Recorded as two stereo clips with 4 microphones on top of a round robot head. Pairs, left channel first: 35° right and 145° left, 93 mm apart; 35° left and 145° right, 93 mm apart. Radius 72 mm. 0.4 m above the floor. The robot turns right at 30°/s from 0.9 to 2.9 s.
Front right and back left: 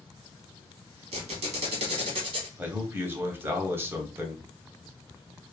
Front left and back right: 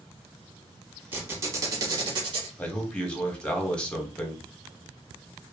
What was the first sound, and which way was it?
A squeak, 140° left.